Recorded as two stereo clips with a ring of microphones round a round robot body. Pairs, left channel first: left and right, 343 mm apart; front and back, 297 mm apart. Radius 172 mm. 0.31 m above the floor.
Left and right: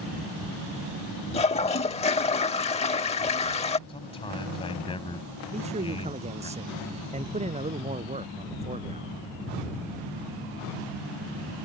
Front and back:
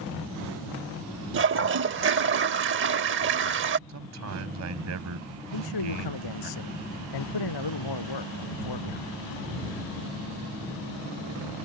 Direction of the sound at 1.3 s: 155° left.